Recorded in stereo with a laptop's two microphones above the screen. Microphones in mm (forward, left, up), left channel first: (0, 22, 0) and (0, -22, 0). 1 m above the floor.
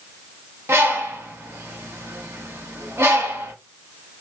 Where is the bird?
70° right (ahead or behind), 1.2 m.